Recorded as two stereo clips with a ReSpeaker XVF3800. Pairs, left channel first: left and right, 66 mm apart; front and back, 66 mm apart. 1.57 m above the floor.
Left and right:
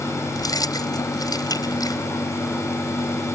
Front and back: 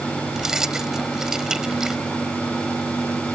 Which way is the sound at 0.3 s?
100° left.